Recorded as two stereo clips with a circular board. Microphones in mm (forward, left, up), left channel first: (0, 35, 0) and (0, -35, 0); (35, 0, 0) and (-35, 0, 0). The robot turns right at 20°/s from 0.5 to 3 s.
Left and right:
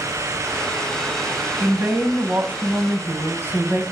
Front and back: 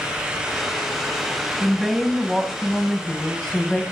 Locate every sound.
1.6 s a woman speaking: 100° right, 1.1 m; by 3.8 s 75° right, 1.1 m